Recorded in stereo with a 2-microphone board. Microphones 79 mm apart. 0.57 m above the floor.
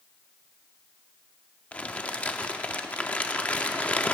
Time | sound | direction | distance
1.7 | crumpling | 15° left (ahead or behind) | 0.8 m